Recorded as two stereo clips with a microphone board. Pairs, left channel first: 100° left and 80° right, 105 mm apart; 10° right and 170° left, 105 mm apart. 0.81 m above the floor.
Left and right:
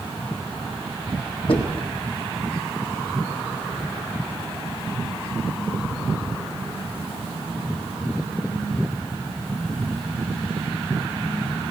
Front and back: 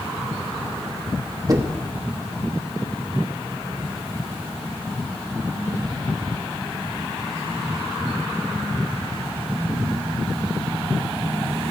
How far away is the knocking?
About 1.0 m.